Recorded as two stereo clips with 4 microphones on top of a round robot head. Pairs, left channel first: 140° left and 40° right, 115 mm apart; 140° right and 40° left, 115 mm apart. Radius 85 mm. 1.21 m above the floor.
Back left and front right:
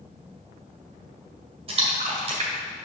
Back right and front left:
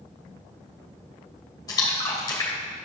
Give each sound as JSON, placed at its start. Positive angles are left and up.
{"t": 1.7, "sound": "a splash", "azimuth_deg": -80, "distance_m": 1.7}